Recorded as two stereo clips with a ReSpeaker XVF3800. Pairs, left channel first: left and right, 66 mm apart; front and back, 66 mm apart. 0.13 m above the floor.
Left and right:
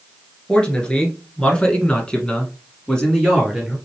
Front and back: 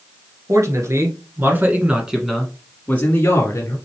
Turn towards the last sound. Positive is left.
turn(degrees=10)